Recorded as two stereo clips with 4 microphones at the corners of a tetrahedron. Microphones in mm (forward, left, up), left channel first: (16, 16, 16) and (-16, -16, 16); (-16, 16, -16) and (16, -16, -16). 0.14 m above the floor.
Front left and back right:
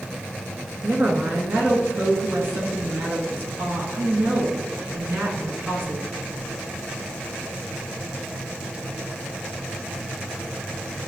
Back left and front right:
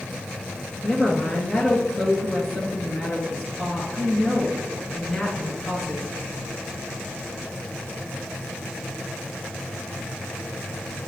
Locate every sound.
0.8 s a woman speaking: 155° right, 1.8 m